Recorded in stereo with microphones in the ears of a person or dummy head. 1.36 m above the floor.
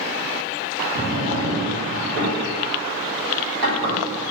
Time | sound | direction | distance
0.9 | a drawer | 65° right (ahead or behind) | 1.2 m